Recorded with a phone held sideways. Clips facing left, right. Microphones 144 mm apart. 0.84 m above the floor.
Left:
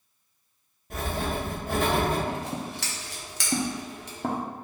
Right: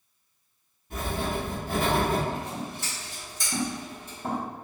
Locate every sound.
0.9 s writing: 75° left (ahead or behind), 1.3 m
2.3 s scissors: 75° left (ahead or behind), 0.6 m